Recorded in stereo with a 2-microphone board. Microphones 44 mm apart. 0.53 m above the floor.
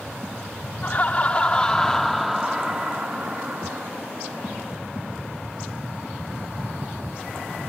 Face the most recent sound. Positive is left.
turn(degrees=-45)  # may be behind; listen again after turning